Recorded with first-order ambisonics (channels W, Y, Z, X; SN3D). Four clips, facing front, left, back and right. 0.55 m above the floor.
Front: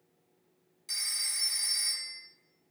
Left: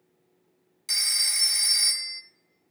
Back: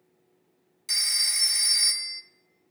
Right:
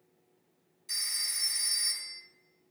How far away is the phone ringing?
About 0.5 m.